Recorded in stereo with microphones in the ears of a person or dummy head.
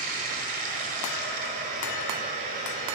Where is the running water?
45° right (ahead or behind), 1.8 m.